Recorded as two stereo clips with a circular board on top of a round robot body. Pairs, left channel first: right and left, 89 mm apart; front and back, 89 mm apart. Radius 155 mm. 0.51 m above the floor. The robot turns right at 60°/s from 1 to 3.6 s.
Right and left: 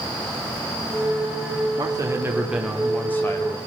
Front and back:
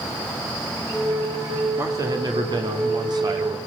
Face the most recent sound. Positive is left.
turn(degrees=-130)